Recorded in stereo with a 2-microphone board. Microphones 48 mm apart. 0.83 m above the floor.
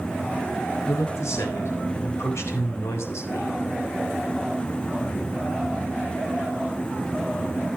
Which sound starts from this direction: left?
A man speaking, at 0.9 s.